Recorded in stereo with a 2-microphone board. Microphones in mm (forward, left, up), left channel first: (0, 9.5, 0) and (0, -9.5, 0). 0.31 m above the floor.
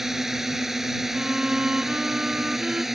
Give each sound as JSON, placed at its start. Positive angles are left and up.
{"t": 0.0, "sound": "a drone", "side_deg": -20}
{"t": 1.1, "sound": "a violin", "side_deg": -60}